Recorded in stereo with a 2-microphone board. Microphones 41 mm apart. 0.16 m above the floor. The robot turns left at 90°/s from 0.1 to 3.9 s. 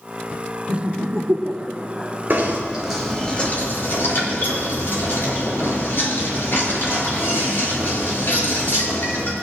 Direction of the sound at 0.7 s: 40° right (ahead or behind).